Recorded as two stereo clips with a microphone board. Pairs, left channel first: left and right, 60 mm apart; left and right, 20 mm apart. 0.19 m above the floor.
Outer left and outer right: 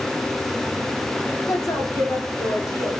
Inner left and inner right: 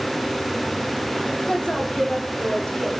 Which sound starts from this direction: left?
A woman speaking, at 1.5 s.